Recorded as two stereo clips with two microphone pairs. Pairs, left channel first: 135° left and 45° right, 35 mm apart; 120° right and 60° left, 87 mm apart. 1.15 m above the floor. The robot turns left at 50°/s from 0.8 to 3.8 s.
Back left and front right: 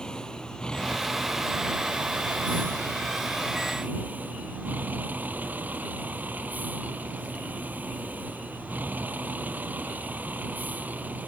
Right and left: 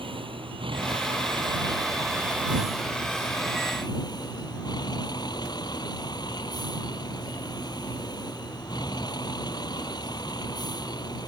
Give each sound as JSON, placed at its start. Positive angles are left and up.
{"t": 0.0, "sound": "a vehicle", "azimuth_deg": 65}